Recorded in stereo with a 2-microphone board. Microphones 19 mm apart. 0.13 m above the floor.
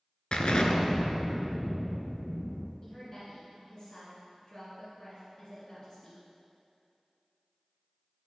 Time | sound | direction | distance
0.3 | an explosion | 55° left (ahead or behind) | 0.5 m
2.8 | a woman speaking | 20° left (ahead or behind) | 1.7 m